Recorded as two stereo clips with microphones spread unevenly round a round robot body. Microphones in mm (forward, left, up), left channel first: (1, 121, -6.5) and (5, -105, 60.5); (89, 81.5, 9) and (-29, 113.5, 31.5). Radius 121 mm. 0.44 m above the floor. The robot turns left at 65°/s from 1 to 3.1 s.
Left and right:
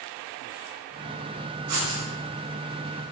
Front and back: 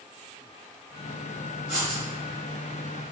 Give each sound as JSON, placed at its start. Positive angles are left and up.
{"t": 1.7, "sound": "writing", "azimuth_deg": -110, "distance_m": 0.8}